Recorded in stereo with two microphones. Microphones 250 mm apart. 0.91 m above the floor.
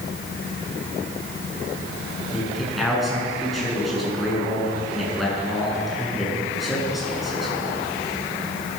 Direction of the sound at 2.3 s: Centre (ahead or behind).